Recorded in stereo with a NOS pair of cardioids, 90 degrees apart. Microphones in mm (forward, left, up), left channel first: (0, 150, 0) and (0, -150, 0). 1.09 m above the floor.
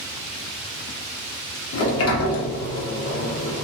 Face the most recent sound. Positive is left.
turn(degrees=50)